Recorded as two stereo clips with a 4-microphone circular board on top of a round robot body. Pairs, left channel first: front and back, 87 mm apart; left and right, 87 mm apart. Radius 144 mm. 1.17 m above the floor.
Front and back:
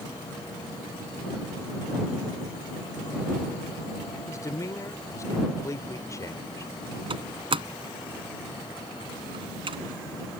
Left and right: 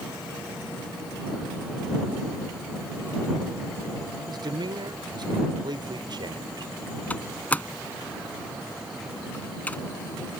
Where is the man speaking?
55° right.